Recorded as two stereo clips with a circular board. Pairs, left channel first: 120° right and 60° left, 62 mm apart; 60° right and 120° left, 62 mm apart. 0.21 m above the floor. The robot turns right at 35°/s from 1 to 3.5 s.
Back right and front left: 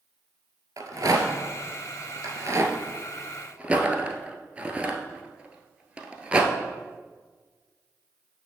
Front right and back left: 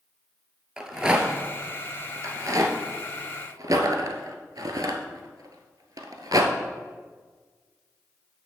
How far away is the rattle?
About 1.1 m.